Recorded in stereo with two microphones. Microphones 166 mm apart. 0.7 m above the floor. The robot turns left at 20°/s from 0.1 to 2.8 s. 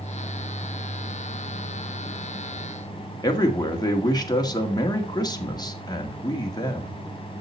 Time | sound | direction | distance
3.2 | a man speaking | 25° left (ahead or behind) | 1.8 m